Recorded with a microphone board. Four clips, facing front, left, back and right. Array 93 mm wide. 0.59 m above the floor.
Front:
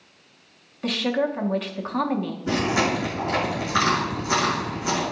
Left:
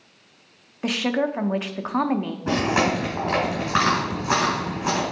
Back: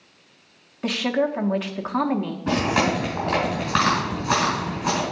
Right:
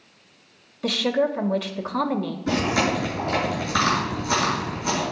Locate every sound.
0.8 s a woman speaking: 120° left, 0.6 m
2.5 s chewing: 135° left, 3.5 m